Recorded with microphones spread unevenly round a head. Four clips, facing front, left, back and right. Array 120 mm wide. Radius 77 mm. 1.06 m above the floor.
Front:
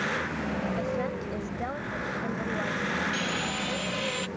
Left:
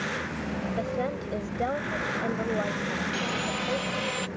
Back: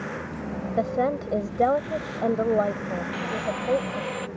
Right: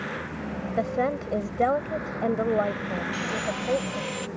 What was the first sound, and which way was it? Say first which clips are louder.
A woman speaking: right 7 dB, back 6 dB; 160° right.